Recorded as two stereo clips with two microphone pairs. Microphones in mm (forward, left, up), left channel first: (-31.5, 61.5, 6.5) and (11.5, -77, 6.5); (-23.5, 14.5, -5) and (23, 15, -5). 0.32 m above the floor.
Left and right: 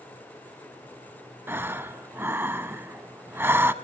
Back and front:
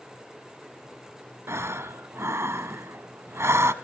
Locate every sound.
1.5 s breathing: straight ahead, 0.9 m